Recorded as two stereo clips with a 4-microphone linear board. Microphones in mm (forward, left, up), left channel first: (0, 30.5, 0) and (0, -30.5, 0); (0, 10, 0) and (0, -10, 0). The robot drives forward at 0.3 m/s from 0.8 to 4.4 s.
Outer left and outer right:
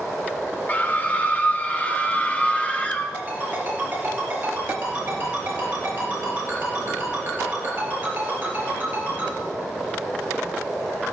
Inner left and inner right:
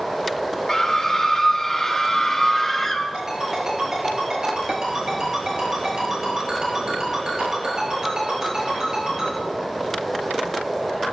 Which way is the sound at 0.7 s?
30° left (ahead or behind).